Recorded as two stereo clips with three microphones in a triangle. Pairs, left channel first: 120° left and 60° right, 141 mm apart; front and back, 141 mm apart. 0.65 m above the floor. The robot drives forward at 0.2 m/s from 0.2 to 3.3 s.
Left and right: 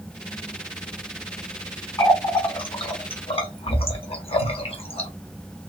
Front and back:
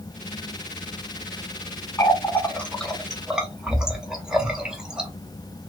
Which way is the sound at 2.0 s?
65° left.